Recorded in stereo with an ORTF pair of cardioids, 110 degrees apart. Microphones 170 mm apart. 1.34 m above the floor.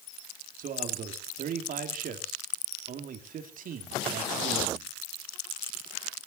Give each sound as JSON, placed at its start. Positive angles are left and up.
{"t": 0.6, "sound": "a man speaking", "azimuth_deg": -60, "distance_m": 2.5}